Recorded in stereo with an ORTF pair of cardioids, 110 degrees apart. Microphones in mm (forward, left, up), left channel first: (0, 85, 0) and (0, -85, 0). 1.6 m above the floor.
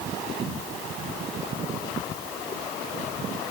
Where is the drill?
No drill in this recording.